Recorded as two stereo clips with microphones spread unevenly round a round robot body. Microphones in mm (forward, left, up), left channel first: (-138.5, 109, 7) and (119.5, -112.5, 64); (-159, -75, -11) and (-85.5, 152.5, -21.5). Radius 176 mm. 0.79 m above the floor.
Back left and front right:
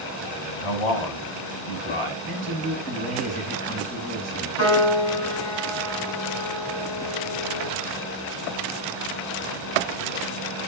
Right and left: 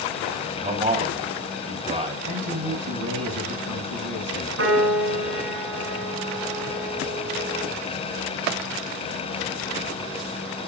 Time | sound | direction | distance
0.6 | a man speaking | 135° left | 5 m
2.3 | a man speaking | 70° left | 6.5 m
4.6 | a piano | 95° left | 8 m